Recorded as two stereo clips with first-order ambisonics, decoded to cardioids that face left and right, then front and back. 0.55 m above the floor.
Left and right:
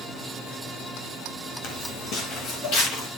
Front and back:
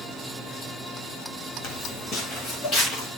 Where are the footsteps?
50° left, 2.5 m; by 3.1 s 65° left, 4 m.